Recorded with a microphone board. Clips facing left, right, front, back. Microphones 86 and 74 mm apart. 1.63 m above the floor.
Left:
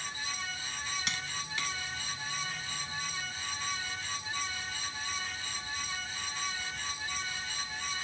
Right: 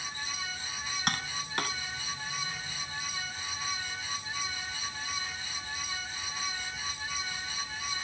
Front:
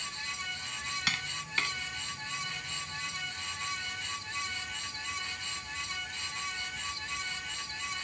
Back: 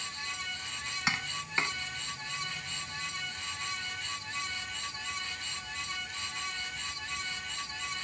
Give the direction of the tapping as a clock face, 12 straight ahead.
4 o'clock.